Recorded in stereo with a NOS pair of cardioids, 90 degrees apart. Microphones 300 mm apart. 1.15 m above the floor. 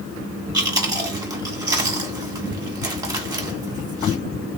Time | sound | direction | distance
0.5 | chewing | 15° right | 1.5 m